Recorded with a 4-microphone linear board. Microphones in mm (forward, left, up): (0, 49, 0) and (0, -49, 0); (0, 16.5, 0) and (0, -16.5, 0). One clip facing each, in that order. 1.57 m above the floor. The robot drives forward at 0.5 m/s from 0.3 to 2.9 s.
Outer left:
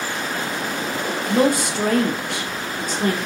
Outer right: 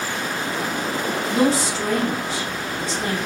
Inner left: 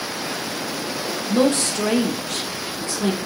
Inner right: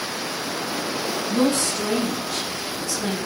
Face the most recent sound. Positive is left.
turn(degrees=50)  # may be behind; listen again after turning